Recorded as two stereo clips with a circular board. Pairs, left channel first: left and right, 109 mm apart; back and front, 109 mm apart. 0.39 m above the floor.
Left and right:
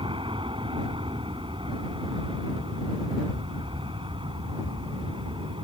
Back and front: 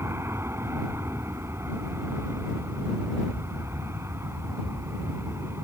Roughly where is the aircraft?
Ahead right.